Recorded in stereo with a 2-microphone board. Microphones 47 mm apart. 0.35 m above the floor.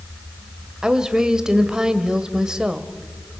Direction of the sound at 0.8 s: 15° right (ahead or behind).